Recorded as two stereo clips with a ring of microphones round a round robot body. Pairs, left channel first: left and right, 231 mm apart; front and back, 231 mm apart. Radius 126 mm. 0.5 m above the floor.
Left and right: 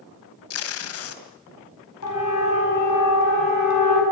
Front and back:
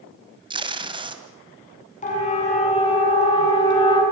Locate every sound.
0.5 s tape being pulled: 110° left, 2 m
2.0 s a siren: 55° left, 6.5 m; by 4.0 s 70° left, 7.5 m